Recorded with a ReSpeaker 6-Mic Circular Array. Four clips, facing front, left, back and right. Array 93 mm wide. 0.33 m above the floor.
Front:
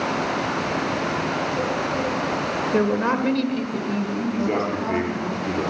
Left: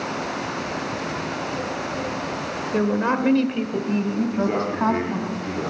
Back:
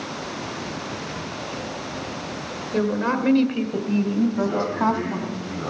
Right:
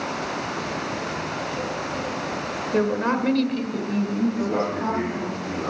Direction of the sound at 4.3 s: 25° left.